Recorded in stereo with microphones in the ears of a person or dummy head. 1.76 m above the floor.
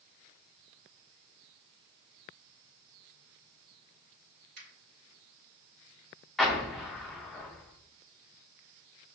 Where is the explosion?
Centre (ahead or behind), 0.6 m.